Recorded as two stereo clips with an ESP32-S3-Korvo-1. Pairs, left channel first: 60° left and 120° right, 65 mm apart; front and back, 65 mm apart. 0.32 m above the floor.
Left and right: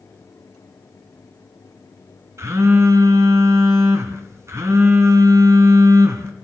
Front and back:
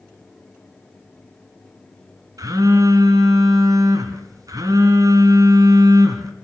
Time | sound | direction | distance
2.4 | a phone buzzing | 160° right | 2.5 m